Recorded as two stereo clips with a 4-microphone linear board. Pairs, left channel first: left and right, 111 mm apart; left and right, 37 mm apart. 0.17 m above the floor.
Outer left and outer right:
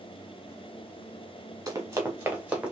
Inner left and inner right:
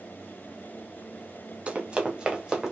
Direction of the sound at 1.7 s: 30° right (ahead or behind).